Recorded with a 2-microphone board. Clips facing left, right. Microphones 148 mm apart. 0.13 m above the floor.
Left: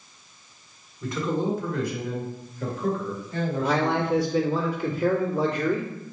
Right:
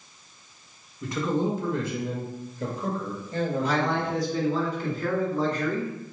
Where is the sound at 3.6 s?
5° left (ahead or behind), 2.0 m.